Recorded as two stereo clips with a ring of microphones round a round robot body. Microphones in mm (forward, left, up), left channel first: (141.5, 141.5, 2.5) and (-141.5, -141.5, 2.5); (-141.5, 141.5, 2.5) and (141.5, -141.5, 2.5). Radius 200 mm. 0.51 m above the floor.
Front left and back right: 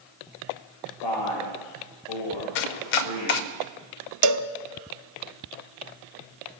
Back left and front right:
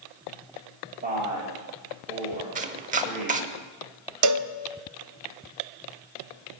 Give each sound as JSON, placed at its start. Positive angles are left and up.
{"t": 1.0, "sound": "a man speaking", "azimuth_deg": 25, "distance_m": 3.0}
{"t": 2.5, "sound": "chopping", "azimuth_deg": 25, "distance_m": 0.8}
{"t": 4.2, "sound": "a cowbell", "azimuth_deg": -90, "distance_m": 0.5}